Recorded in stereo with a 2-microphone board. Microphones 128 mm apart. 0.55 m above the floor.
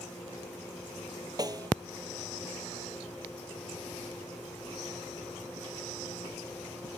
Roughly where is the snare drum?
Right.